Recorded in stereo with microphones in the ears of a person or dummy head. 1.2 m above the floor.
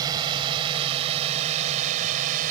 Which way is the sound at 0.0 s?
25° right (ahead or behind).